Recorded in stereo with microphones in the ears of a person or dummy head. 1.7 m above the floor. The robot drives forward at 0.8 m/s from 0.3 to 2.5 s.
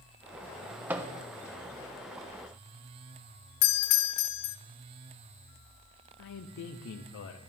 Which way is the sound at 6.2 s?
60° left (ahead or behind).